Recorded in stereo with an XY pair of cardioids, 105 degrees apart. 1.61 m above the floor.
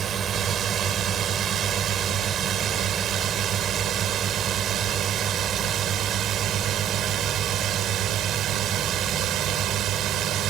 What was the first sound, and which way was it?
A drone, 60° right.